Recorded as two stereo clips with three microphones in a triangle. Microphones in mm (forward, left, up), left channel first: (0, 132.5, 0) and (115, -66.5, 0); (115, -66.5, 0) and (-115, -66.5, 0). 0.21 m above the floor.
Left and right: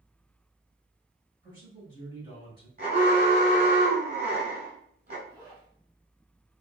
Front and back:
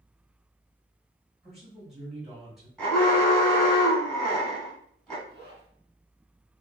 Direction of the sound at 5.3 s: 5° left.